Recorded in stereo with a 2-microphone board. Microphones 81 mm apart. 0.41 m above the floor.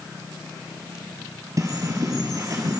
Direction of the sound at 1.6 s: 40° right (ahead or behind).